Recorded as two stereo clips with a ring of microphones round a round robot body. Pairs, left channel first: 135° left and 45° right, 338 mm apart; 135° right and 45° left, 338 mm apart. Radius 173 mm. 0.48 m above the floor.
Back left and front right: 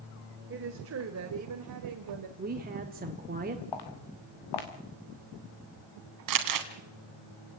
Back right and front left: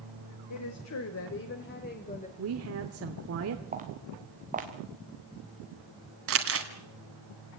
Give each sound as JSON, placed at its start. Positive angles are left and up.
{"t": 0.5, "sound": "a woman speaking", "azimuth_deg": -100, "distance_m": 2.0}
{"t": 2.4, "sound": "a woman speaking", "azimuth_deg": 15, "distance_m": 1.7}
{"t": 3.7, "sound": "footsteps", "azimuth_deg": 115, "distance_m": 3.5}
{"t": 6.3, "sound": "crumpling", "azimuth_deg": -10, "distance_m": 2.0}